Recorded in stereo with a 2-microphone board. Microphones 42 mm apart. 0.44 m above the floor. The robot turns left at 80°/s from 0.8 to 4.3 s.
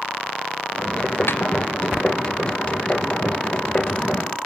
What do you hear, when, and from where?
1.3 s a snare drum: 65° left (ahead or behind), 1.2 m; by 1.4 s 75° left (ahead or behind), 1.2 m